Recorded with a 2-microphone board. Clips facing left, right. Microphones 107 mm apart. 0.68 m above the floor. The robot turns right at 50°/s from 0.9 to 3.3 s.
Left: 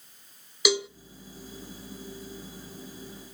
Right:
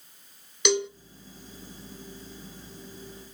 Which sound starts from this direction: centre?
A cowbell, at 0.7 s.